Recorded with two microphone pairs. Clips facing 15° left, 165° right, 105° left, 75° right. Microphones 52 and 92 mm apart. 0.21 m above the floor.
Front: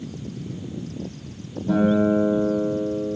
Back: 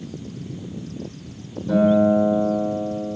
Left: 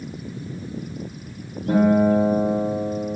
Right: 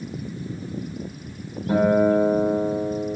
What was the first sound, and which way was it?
A guitar, 70° left.